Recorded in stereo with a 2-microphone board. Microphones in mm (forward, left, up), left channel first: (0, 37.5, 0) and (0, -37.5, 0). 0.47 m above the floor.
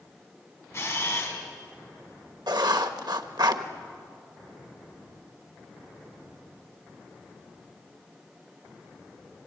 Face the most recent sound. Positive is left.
turn(degrees=-65)  # may be behind; listen again after turning